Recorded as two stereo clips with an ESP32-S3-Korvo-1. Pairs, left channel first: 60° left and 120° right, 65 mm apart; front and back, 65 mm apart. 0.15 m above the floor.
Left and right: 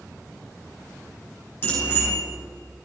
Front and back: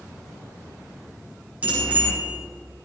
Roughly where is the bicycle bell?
Behind left.